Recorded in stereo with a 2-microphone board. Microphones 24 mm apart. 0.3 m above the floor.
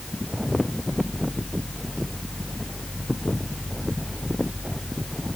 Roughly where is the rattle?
I don't hear a rattle.